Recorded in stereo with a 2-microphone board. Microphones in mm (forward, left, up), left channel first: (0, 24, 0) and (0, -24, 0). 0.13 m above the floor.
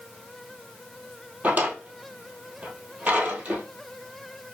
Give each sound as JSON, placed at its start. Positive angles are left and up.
{"t": 1.4, "sound": "a drawer", "side_deg": -35, "distance_m": 1.2}